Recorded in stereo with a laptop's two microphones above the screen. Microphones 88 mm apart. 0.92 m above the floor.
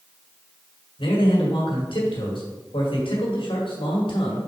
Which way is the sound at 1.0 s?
80° left.